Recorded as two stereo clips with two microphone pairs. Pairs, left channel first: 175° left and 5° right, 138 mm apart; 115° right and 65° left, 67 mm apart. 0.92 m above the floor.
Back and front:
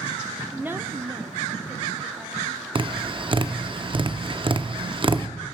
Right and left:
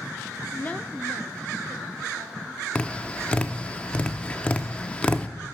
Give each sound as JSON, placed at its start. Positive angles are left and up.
{"t": 0.5, "sound": "a woman speaking", "azimuth_deg": -90, "distance_m": 0.6}
{"t": 2.8, "sound": "tapping", "azimuth_deg": -50, "distance_m": 0.5}